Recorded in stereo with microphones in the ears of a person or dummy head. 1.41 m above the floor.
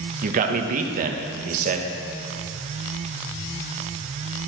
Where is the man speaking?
50° right (ahead or behind), 1.0 m.